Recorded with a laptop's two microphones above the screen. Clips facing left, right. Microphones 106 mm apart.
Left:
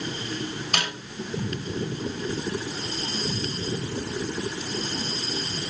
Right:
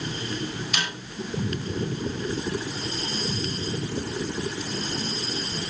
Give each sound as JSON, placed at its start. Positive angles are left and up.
{"t": 0.7, "sound": "a snare drum", "side_deg": 55, "distance_m": 6.0}